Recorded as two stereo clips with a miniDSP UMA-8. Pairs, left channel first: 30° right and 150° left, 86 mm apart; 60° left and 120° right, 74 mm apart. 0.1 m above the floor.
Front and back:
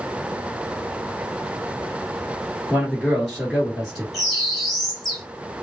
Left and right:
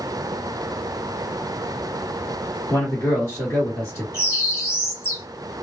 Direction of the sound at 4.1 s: 55° left.